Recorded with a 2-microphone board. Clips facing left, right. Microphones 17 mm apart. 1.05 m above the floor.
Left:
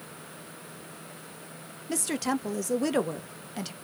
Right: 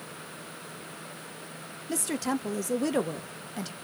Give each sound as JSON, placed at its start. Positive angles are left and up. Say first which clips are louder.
{"t": 1.9, "sound": "a woman speaking", "louder": "left 1 dB", "side_deg": 10, "distance_m": 0.5}